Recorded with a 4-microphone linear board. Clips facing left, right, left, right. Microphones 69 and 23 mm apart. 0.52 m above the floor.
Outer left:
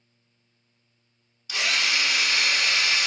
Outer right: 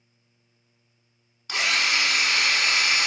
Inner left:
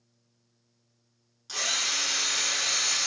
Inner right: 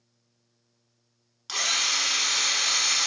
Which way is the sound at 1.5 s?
45° right (ahead or behind).